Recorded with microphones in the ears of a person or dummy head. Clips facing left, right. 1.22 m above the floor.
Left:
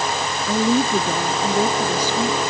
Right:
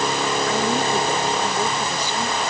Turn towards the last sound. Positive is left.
turn(degrees=75)  # may be behind; listen again after turning